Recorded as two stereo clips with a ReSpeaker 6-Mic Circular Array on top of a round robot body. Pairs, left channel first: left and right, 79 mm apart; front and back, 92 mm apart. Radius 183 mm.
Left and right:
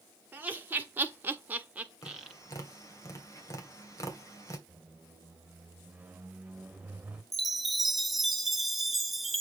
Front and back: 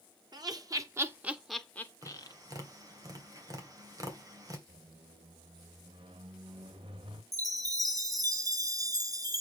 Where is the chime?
Straight behind, 1.3 m.